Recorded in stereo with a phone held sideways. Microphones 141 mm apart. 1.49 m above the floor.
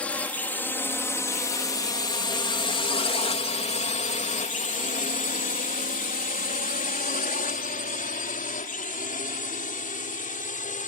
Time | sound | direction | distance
0.0 | a drone | 10° left (ahead or behind) | ?